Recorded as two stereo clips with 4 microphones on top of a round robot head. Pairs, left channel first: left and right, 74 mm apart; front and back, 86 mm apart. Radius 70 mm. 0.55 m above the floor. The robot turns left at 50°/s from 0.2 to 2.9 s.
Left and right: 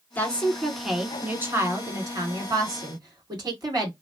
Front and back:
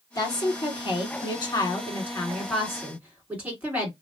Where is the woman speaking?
30° left, 2.0 m; by 3.9 s 105° right, 2.0 m.